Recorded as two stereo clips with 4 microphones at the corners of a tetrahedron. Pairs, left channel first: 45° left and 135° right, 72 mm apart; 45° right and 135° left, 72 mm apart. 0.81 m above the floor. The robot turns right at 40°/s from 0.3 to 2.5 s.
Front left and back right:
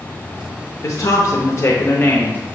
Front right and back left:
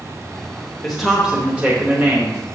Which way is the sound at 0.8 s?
40° left.